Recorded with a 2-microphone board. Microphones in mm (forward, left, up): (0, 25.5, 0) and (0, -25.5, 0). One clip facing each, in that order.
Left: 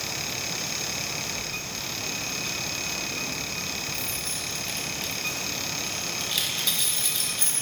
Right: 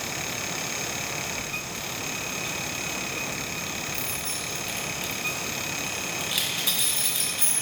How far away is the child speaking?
I don't hear a child speaking.